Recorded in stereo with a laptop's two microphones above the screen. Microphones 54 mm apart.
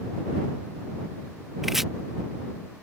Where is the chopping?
5° right (ahead or behind).